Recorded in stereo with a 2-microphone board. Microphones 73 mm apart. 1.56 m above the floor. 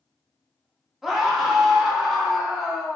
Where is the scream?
5° right (ahead or behind), 1.3 m.